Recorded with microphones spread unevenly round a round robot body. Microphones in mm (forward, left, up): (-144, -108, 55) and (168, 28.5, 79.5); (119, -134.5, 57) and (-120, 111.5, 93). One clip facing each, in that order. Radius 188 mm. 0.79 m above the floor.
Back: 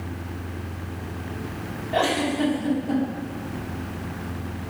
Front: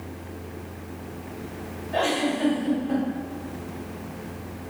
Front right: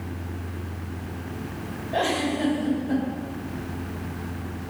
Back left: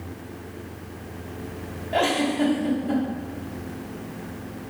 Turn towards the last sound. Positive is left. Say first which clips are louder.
# back 1 dB, back left 3 dB
turn(degrees=160)